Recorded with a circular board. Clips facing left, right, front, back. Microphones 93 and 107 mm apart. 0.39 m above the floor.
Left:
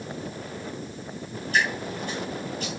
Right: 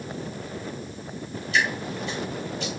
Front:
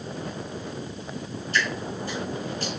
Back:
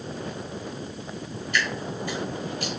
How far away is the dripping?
About 3 m.